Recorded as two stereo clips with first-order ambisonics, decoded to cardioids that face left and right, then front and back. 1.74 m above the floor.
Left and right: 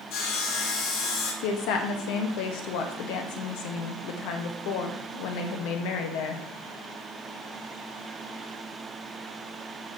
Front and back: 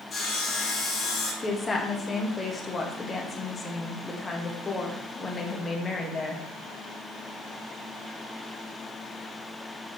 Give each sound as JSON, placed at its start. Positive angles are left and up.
{"t": 0.1, "sound": "sawing", "azimuth_deg": 65, "distance_m": 2.0}
{"t": 1.4, "sound": "a woman speaking", "azimuth_deg": 75, "distance_m": 1.1}